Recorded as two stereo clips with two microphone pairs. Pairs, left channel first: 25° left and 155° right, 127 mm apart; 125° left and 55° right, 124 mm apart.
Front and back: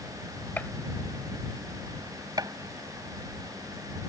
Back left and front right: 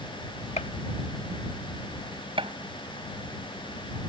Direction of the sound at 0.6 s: 100° left.